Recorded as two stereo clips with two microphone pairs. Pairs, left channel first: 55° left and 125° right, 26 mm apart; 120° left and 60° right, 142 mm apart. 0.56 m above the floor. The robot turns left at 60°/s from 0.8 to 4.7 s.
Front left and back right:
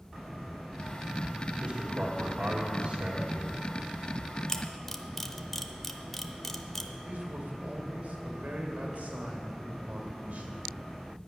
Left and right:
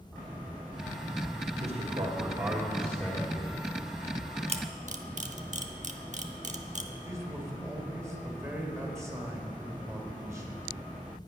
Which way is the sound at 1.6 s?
75° right.